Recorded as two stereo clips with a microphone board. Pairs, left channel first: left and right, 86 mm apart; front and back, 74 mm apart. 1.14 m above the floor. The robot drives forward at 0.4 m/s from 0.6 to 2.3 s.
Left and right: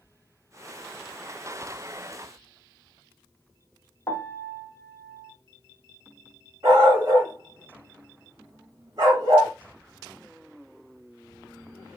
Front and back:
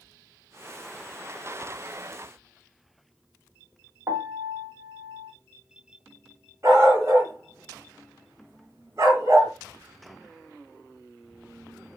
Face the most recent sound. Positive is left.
turn(degrees=-135)